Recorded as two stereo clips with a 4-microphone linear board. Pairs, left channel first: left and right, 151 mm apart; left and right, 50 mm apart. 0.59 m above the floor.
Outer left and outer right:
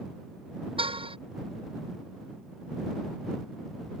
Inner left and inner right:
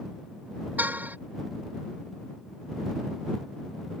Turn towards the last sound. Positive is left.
turn(degrees=-35)  # may be behind; listen again after turning